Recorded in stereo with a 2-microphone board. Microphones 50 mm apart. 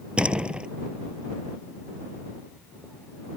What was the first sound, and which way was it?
A door slam, 20° right (ahead or behind).